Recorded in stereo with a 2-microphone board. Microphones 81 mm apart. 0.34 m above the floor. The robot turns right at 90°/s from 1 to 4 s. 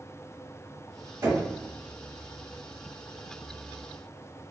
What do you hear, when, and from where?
1.2 s knocking: 35° right (ahead or behind), 1.4 m; by 1.5 s 50° right (ahead or behind), 1.4 m